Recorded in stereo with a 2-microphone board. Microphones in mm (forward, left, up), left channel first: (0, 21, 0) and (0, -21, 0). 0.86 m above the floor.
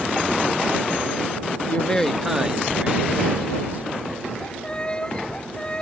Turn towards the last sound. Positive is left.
turn(degrees=25)  # may be behind; listen again after turning